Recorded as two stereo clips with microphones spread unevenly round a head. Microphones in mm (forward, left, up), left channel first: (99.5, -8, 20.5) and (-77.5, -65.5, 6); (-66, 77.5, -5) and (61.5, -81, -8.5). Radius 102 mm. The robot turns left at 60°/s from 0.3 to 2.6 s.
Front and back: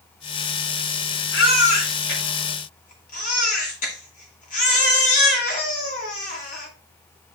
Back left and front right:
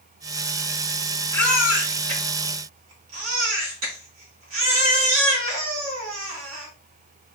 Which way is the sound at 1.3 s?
55° left.